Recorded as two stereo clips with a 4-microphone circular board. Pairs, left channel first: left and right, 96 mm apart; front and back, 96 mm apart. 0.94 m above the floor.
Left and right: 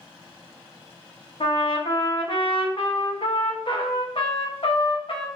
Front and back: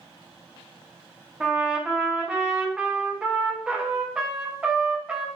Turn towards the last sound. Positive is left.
turn(degrees=100)